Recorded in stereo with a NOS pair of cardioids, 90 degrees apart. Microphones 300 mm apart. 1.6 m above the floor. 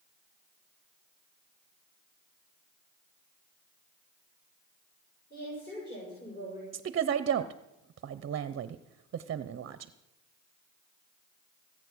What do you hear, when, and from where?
5.3 s a woman speaking: 30° left, 6.5 m
6.7 s a woman speaking: 45° right, 0.7 m